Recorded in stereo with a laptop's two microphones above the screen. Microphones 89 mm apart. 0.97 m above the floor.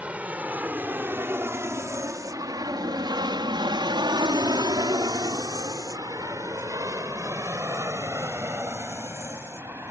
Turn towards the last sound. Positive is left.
turn(degrees=-25)  # may be behind; listen again after turning